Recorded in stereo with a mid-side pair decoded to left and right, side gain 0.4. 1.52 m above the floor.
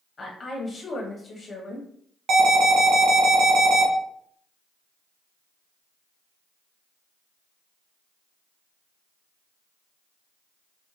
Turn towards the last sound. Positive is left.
turn(degrees=-65)